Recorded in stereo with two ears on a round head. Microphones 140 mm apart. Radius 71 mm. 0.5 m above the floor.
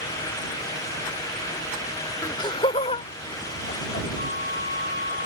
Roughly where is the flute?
Left.